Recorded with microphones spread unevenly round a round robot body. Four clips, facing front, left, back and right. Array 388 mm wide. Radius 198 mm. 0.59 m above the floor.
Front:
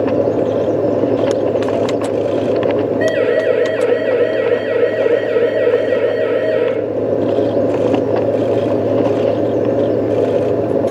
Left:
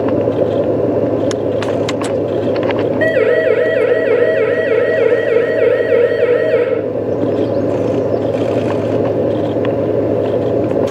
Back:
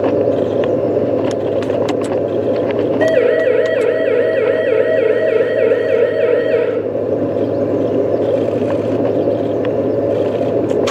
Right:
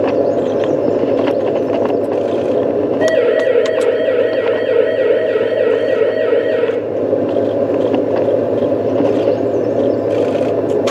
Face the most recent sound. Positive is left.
turn(degrees=85)